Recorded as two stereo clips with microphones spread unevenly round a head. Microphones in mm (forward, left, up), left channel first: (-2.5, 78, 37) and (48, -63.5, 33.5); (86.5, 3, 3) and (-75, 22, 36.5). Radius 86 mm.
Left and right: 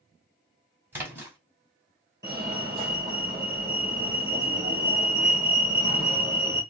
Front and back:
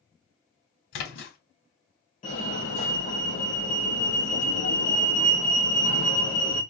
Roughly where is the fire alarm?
Ahead.